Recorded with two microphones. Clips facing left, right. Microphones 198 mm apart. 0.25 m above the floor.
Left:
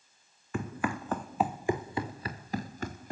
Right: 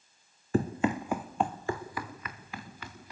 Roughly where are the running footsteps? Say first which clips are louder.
Right 6 dB; right.